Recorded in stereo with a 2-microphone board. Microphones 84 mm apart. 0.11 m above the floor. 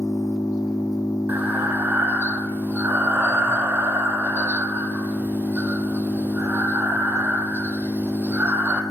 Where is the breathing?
20° right (ahead or behind), 0.6 m.